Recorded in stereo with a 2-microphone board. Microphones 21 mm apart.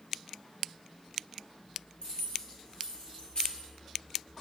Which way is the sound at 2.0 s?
45° left (ahead or behind).